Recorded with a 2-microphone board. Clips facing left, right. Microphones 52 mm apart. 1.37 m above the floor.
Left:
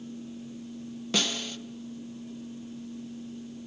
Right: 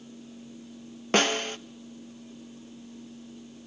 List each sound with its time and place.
1.1 s a snare drum: 45° right (ahead or behind), 0.7 m